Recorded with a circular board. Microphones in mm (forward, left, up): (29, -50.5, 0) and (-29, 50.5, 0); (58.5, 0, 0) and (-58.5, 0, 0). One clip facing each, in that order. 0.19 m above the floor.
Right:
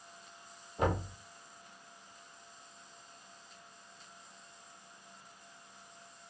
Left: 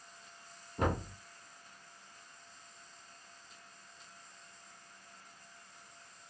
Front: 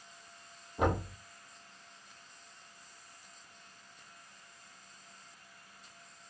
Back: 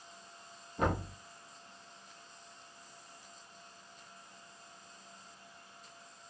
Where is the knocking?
80° left, 3.5 m.